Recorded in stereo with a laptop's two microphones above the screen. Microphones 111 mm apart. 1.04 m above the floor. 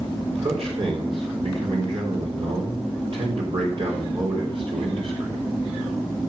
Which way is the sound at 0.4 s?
55° right (ahead or behind).